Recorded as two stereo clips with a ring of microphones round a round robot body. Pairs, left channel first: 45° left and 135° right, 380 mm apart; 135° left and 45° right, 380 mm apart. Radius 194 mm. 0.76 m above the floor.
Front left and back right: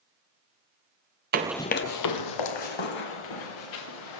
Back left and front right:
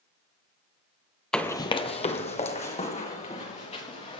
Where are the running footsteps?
140° right, 0.8 m; by 4.2 s 60° left, 4 m.